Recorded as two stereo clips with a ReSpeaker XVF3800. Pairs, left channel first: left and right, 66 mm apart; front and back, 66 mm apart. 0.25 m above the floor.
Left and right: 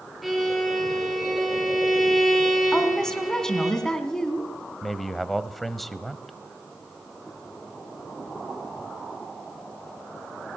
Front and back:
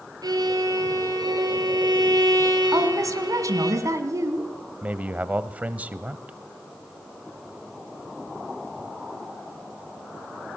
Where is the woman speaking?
170° left, 2 m.